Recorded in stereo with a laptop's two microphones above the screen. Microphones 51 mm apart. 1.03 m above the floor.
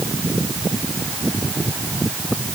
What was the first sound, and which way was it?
Only background noise.